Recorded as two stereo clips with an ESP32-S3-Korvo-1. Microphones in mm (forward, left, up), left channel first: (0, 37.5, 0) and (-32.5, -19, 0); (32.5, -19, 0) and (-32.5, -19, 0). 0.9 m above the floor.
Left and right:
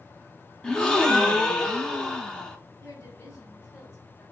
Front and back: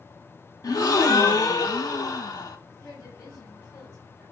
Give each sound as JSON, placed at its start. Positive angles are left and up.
{"t": 0.6, "sound": "a gasp", "azimuth_deg": -20, "distance_m": 0.8}
{"t": 2.8, "sound": "a woman speaking", "azimuth_deg": 10, "distance_m": 2.5}